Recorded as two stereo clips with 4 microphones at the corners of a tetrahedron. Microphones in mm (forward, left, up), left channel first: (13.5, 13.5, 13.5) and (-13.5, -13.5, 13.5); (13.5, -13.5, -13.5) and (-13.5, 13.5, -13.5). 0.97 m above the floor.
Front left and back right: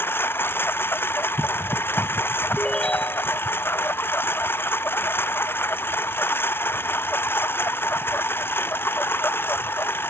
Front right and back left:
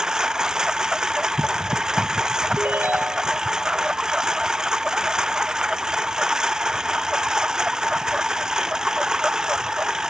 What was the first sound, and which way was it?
A lawn mower, 65° left.